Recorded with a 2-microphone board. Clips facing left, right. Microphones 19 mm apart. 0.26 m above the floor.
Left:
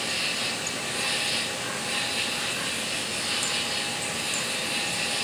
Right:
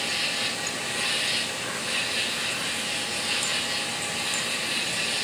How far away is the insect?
About 4 m.